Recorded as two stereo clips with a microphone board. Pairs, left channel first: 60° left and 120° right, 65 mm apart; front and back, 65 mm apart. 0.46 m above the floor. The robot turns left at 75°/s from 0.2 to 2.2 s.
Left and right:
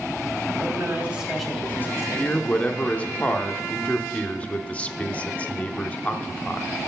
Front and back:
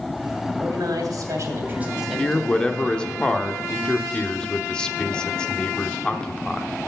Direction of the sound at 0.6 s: 155° right.